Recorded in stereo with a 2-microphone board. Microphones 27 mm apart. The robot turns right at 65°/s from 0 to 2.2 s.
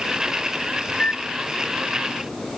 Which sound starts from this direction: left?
A microwave, at 0.9 s.